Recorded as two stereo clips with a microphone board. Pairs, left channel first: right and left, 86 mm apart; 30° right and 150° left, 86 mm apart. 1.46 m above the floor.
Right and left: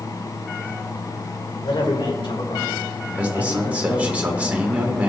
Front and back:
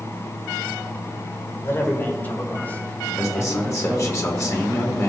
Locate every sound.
1.6 s a man speaking: 85° right, 2 m; by 4.2 s 110° right, 4.5 m
3.1 s a man speaking: 20° left, 2 m